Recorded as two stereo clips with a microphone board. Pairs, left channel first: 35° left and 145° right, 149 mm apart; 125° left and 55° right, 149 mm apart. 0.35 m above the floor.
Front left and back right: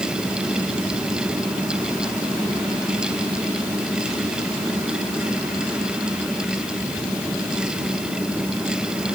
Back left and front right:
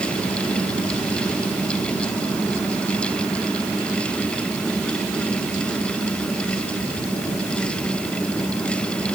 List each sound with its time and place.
Only background noise.